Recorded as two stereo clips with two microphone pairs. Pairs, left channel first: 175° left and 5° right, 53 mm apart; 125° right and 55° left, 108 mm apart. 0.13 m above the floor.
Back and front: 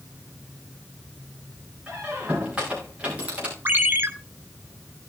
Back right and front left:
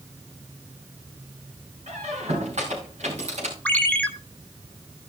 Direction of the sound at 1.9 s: 65° left.